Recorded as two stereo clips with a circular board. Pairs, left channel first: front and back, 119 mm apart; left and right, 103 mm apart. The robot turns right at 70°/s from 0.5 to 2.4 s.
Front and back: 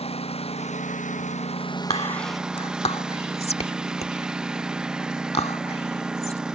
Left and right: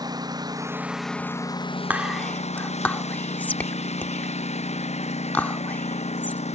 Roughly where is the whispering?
Ahead.